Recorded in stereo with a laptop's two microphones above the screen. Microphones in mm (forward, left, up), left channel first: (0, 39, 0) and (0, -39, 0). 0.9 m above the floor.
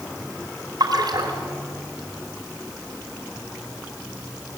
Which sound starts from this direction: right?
A splash, at 0.8 s.